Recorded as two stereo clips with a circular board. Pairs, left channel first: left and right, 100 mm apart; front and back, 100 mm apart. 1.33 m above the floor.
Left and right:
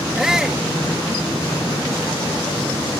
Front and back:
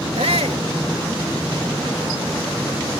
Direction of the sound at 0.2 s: 175° right.